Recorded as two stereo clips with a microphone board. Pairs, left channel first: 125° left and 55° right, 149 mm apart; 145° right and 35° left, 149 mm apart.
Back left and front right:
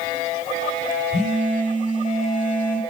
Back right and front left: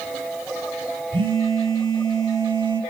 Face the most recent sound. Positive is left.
turn(degrees=90)